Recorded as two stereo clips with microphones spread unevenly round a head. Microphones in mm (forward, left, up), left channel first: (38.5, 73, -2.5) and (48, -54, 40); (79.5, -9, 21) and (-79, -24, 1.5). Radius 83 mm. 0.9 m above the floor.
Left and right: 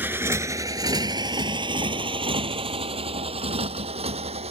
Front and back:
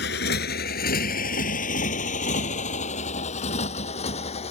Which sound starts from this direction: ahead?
A motorcycle, at 0.0 s.